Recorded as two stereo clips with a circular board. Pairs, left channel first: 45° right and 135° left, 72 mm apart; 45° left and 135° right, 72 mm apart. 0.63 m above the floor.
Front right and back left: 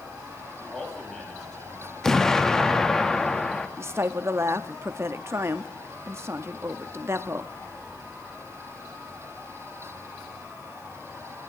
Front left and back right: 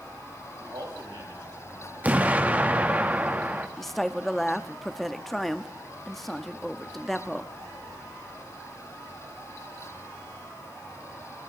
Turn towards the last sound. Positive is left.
turn(degrees=130)